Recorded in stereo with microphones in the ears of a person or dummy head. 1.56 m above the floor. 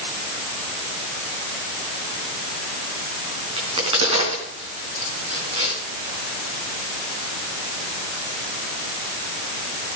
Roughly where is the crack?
Right.